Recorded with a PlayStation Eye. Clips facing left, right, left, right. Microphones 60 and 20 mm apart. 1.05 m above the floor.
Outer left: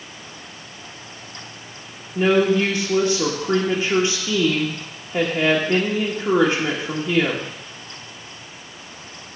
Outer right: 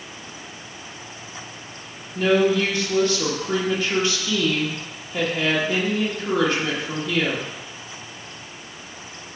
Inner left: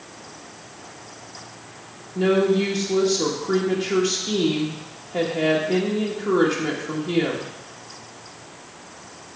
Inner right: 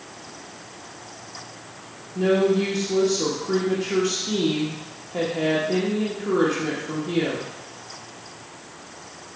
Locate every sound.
2.1 s a woman speaking: 25° left (ahead or behind), 1.2 m